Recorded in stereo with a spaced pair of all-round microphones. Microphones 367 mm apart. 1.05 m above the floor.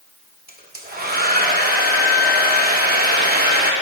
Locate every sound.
0.5 s a hair dryer: 25° right (ahead or behind), 0.6 m